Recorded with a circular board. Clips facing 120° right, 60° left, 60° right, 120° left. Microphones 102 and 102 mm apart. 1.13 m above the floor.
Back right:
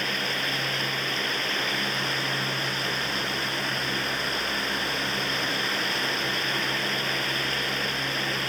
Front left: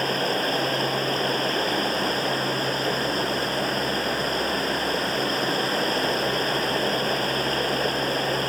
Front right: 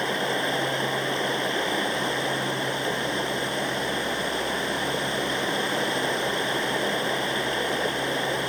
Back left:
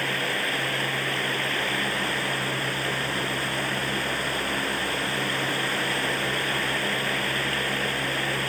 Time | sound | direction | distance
0.0 | running water | 10° left | ?